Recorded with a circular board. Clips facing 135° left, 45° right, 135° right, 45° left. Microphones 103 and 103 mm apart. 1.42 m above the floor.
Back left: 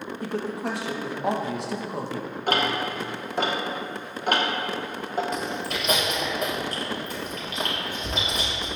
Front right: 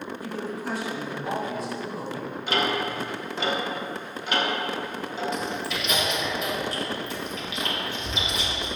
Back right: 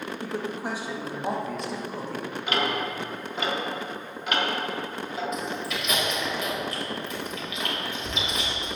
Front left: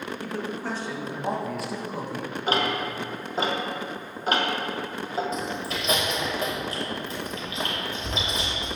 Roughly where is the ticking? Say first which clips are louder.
Back left 1 dB, front left 2 dB; left.